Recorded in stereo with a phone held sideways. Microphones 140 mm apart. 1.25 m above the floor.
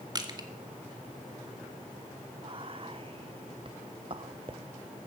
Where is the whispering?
40° right (ahead or behind), 0.5 m.